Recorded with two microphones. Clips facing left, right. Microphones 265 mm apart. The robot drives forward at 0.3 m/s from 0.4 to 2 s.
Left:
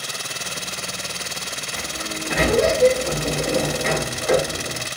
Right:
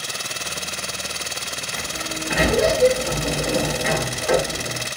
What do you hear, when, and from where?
1.7 s a sliding door: 10° right (ahead or behind), 1.0 m; by 4.9 s 5° right (ahead or behind), 1.0 m